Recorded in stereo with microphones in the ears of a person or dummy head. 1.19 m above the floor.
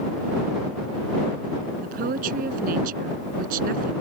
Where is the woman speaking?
50° right (ahead or behind).